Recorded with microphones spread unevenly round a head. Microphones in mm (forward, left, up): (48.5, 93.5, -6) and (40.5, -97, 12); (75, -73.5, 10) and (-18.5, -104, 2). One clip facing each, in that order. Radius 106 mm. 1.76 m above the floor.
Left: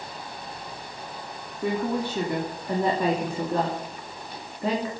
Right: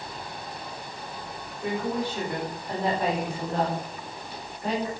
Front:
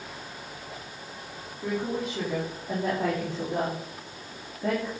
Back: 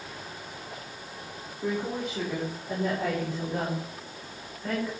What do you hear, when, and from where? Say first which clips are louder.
1.6 s a woman speaking: left 2 dB, front 1 dB; 110° left, 3.5 m; by 4.9 s 70° left, 3.5 m